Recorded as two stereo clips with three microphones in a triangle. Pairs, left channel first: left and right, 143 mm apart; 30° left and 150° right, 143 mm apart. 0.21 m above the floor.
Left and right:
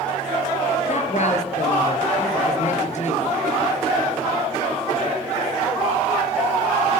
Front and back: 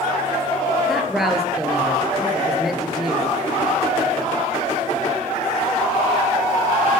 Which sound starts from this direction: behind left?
A woman speaking, at 0.9 s.